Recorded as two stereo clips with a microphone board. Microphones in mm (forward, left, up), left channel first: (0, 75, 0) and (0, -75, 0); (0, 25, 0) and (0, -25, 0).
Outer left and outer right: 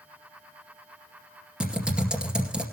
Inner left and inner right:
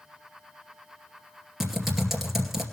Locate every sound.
1.6 s typing on a keyboard: 5° right (ahead or behind), 2.5 m